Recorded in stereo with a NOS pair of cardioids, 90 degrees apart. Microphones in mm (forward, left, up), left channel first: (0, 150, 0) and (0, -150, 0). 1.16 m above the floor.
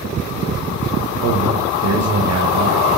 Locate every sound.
1.2 s a man speaking: 60° right, 1.5 m